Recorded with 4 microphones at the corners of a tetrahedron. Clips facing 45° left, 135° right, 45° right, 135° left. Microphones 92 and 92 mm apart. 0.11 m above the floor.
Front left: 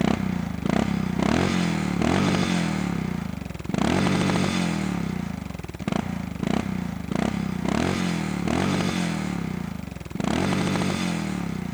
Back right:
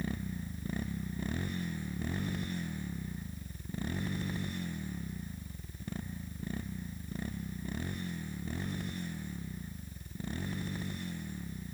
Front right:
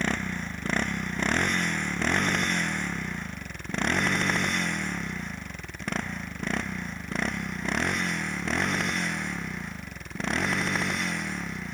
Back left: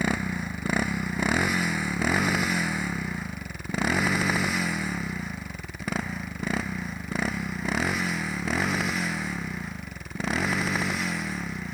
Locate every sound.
0.0 s a motorcycle: 50° left; by 11.7 s 45° left